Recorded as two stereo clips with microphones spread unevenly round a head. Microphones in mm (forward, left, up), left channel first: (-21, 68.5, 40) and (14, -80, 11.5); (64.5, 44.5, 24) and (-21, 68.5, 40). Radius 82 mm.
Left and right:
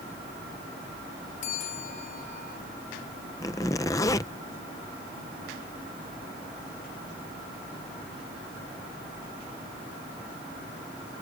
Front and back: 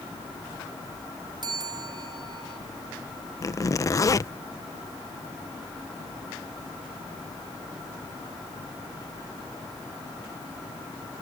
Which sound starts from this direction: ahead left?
A zipper, at 3.4 s.